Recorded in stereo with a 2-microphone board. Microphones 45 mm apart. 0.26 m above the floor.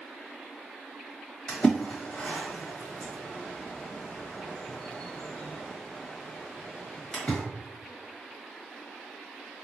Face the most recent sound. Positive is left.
turn(degrees=25)  # may be behind; listen again after turning